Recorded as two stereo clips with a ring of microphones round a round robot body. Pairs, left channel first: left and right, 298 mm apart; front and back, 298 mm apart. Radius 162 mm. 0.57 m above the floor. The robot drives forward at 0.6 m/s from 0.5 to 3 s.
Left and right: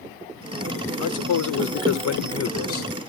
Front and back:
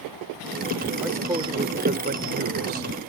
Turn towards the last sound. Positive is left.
turn(degrees=135)